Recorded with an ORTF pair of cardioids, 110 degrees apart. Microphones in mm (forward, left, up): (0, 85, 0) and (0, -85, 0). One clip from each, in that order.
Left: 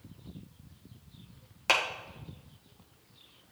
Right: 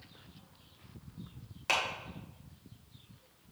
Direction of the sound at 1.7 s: 25° left.